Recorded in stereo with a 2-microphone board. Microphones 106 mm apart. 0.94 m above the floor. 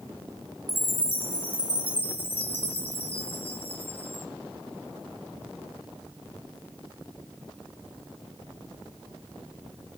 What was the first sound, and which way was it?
A chime, 60° left (ahead or behind).